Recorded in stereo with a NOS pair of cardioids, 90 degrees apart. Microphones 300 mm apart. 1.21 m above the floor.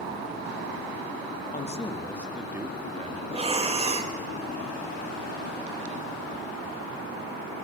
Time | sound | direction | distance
1.5 | a man speaking | 25° left | 2 m
3.3 | breathing | 20° right | 2 m